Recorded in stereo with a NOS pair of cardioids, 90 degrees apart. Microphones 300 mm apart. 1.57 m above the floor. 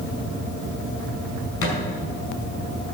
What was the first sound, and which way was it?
A thud, 55° left.